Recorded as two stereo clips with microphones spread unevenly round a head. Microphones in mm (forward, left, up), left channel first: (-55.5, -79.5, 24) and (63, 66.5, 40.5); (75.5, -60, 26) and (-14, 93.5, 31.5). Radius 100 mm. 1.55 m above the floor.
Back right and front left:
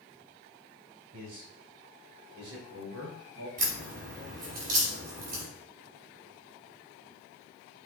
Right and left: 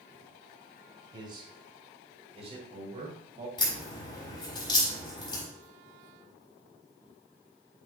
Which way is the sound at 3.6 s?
5° left.